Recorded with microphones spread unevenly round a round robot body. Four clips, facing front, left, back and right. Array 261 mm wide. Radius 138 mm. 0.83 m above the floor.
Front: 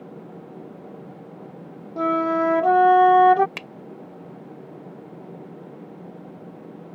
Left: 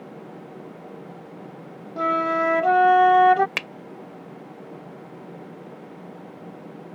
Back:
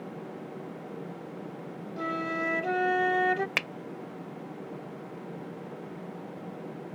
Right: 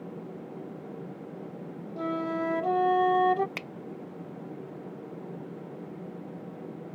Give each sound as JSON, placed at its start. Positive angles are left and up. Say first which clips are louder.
{"t": 2.0, "sound": "a flute", "louder": "left 8 dB, front 12 dB", "azimuth_deg": 40}
{"t": 3.6, "sound": "a finger snap", "louder": "left 7 dB, back 4 dB", "azimuth_deg": 125}